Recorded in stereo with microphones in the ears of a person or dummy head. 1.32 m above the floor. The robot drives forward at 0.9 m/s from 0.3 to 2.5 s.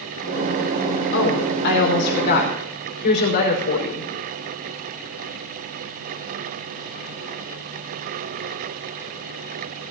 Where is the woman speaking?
65° left (ahead or behind), 4.5 m; by 4.1 s 55° left (ahead or behind), 5 m.